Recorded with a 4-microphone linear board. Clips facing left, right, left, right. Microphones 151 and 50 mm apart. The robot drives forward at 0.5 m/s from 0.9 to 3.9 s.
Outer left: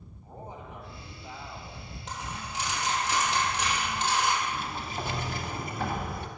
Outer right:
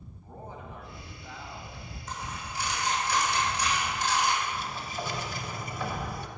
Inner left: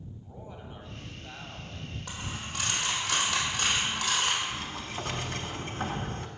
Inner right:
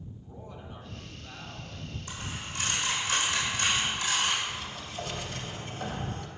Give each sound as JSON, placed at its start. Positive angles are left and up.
{"t": 0.2, "sound": "a man speaking", "side_deg": 20, "distance_m": 1.4}
{"t": 2.1, "sound": "a dropped coin", "side_deg": 80, "distance_m": 2.0}
{"t": 4.4, "sound": "a sliding door", "side_deg": 55, "distance_m": 0.7}